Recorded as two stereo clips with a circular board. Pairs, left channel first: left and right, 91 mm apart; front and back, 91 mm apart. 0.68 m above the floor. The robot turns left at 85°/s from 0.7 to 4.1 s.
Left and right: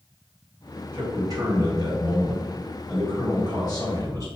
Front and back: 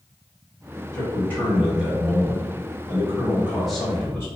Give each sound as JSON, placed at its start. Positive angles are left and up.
{"t": 0.9, "sound": "a man speaking", "azimuth_deg": -35, "distance_m": 1.2}